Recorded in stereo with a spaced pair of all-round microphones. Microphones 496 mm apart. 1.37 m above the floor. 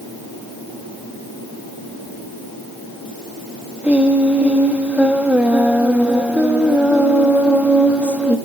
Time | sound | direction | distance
3.8 | singing | 5° right (ahead or behind) | 1.3 m